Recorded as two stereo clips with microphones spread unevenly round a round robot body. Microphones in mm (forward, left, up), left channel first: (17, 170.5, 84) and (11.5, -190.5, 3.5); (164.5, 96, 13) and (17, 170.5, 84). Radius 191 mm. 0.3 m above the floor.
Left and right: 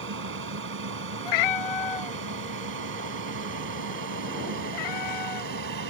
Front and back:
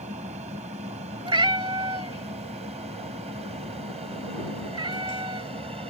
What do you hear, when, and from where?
0.0 s an aircraft: 135° right; by 5.9 s 130° right
1.2 s a cat meowing: 95° left